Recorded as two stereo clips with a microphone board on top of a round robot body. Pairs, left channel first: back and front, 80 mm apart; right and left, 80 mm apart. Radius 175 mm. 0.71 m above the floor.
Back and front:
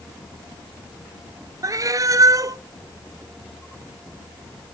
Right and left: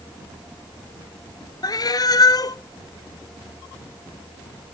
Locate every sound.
1.6 s a cat meowing: 50° right, 0.5 m